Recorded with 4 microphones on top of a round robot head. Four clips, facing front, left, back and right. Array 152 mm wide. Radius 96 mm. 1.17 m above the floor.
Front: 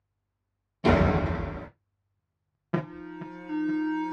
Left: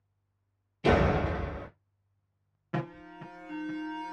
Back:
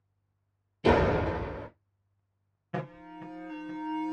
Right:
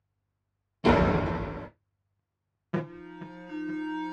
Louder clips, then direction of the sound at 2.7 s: Right 2 dB, front 6 dB; 10° right.